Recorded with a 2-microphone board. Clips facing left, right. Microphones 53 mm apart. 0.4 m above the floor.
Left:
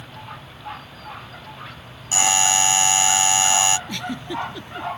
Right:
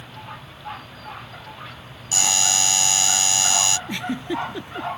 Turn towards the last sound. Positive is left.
turn(degrees=-25)  # may be behind; listen again after turning